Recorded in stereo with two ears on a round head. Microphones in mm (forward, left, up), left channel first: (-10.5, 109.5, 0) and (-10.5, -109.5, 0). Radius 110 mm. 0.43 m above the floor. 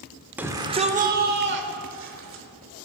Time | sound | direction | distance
0.4 | a shout | 10° right (ahead or behind) | 1.0 m